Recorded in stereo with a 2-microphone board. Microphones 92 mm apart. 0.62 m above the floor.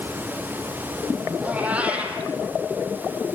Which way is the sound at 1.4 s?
15° right (ahead or behind).